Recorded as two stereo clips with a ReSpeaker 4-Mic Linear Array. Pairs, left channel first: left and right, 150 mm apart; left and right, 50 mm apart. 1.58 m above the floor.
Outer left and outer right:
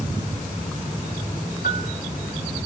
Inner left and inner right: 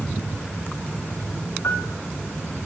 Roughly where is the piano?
Left.